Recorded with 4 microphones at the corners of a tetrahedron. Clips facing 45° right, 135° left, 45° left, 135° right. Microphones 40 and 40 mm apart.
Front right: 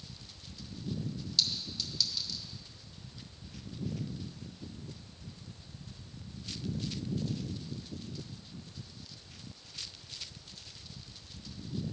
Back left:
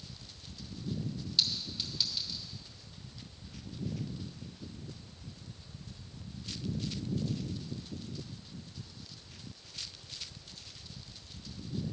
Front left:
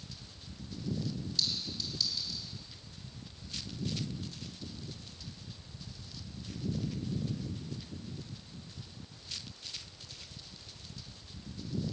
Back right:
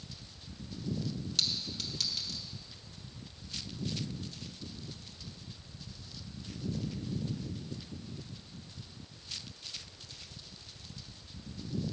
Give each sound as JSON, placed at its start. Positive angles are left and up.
{"t": 1.4, "sound": "a clink", "azimuth_deg": -155, "distance_m": 1.1}